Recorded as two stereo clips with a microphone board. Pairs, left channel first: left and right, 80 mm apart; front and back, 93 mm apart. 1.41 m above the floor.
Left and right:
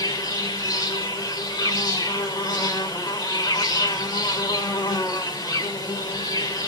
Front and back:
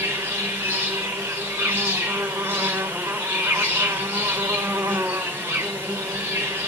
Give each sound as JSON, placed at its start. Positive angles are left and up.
{"t": 0.0, "sound": "an insect", "azimuth_deg": 110, "distance_m": 3.0}